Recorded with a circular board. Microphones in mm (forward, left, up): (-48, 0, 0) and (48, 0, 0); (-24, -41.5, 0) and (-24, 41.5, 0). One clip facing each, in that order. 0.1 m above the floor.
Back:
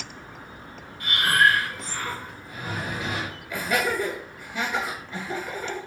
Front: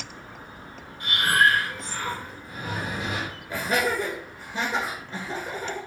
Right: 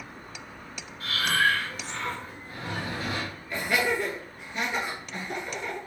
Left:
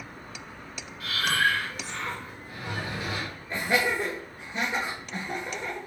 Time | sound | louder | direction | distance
1.0 | breathing | even, right 1 dB | 60° right | 2 m
3.5 | laughter | even, even | 35° left | 1.9 m